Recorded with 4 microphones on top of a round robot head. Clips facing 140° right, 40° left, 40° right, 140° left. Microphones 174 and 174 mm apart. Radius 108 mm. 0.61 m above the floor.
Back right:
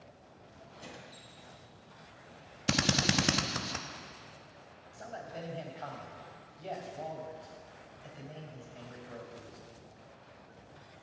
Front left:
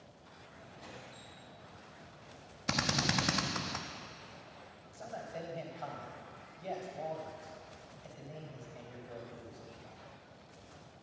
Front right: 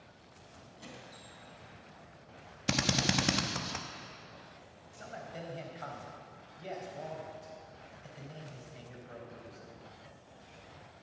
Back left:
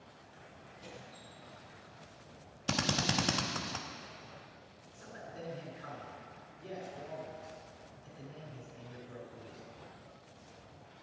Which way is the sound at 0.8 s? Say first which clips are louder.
Back right 2 dB, even; 80° right.